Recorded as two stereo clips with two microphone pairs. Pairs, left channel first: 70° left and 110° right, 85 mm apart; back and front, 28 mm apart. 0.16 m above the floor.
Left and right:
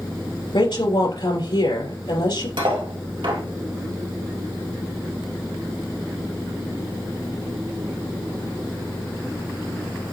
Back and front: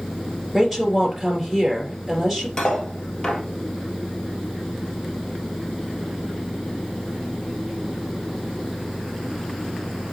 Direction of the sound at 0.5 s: 80° left.